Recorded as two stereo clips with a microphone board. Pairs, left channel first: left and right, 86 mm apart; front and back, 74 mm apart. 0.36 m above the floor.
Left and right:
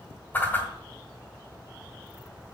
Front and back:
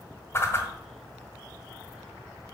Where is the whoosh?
35° left, 1.7 m.